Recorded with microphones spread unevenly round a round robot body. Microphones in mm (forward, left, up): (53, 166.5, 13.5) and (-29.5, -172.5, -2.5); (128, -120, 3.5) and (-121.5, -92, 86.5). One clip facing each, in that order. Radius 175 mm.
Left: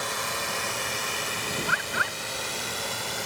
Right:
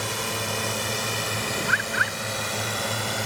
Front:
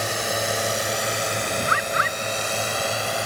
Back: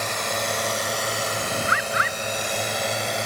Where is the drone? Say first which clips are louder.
Right 4 dB, front 2 dB; 65° right; by 3.3 s 110° right.